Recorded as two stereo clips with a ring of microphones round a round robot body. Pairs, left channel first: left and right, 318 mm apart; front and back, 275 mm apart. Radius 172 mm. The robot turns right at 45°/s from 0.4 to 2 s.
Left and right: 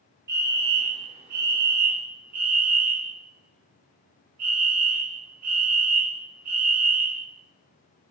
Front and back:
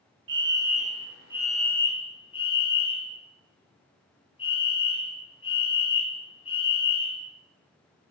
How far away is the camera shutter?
I don't hear a camera shutter.